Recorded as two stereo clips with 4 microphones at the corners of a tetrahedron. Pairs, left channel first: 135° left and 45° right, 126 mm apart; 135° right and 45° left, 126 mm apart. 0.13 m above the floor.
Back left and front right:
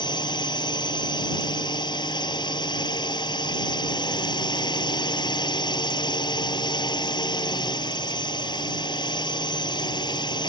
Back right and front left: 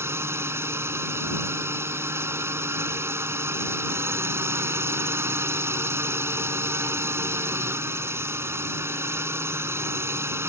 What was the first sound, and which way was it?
A drone, 105° left.